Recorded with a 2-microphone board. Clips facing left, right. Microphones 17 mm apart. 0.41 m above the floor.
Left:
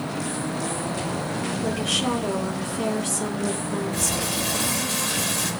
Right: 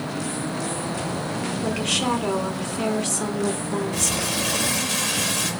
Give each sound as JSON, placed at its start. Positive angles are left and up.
{"t": 1.6, "sound": "a woman speaking", "side_deg": -65, "distance_m": 4.0}
{"t": 3.9, "sound": "crumpling", "side_deg": -45, "distance_m": 5.0}